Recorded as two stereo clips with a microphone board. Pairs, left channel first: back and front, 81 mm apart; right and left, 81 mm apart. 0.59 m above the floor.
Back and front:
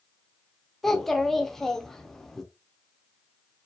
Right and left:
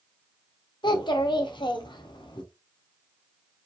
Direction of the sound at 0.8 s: 95° right.